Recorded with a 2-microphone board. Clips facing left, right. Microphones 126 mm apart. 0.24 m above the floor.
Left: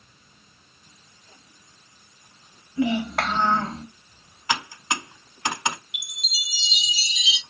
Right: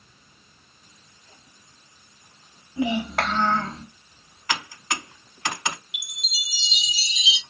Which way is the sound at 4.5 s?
20° left (ahead or behind).